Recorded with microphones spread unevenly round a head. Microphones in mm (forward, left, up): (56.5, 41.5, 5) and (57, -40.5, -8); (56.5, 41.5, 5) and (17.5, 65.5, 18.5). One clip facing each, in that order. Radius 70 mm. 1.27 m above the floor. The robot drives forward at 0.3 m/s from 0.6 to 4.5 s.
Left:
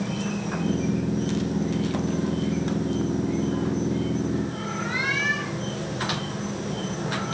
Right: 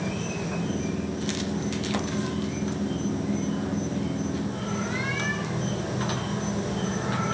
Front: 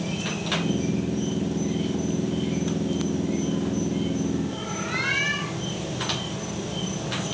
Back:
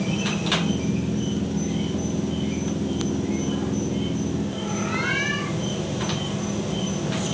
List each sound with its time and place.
0.0 s an insect: 170° left, 2.5 m; by 7.3 s 175° left, 4 m